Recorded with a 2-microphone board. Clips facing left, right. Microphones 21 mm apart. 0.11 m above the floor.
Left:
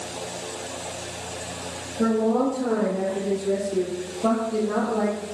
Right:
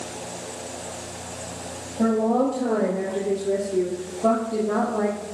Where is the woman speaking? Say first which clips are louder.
Right 1 dB; 25° right (ahead or behind), 2 m; by 5.2 s 15° left (ahead or behind), 3 m.